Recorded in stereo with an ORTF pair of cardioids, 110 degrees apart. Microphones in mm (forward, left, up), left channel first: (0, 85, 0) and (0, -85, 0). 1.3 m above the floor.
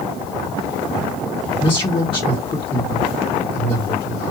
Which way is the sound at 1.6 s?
30° left.